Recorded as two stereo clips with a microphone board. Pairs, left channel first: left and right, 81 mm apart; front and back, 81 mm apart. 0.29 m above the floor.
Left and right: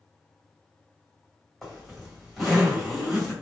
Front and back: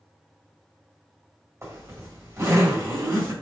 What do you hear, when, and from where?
1.6 s a zipper: straight behind, 1.6 m